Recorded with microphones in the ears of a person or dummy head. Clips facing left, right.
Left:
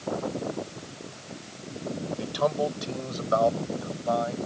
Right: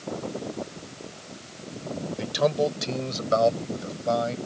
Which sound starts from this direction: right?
A man speaking, at 2.2 s.